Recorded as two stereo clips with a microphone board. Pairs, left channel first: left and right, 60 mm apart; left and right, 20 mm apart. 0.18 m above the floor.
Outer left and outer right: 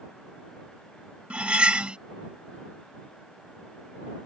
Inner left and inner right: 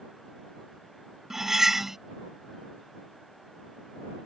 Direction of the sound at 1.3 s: 20° right (ahead or behind).